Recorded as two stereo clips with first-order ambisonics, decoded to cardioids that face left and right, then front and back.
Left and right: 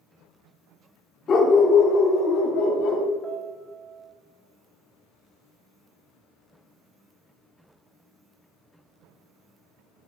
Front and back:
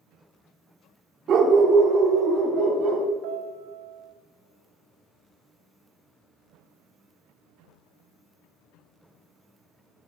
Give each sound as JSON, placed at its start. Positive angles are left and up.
{"t": 1.3, "sound": "a dog barking", "azimuth_deg": 140, "distance_m": 0.9}
{"t": 3.2, "sound": "a piano", "azimuth_deg": -175, "distance_m": 1.4}